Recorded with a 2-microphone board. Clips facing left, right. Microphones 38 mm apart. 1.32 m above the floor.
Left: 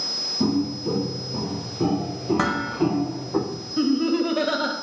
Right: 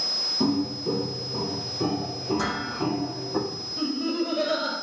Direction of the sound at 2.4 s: 50° left (ahead or behind).